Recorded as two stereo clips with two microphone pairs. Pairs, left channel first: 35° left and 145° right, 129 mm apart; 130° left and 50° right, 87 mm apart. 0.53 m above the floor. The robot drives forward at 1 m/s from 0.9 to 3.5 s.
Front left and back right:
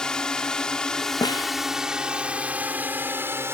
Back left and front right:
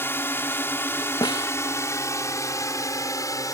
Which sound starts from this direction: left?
A snare drum, at 1.2 s.